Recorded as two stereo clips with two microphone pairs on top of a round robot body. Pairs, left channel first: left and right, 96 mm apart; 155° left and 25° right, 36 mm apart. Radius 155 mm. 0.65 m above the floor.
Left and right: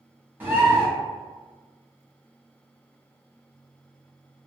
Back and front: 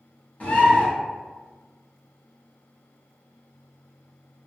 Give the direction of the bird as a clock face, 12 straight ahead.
5 o'clock.